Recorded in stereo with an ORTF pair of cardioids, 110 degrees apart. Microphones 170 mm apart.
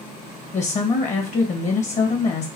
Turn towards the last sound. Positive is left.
turn(degrees=45)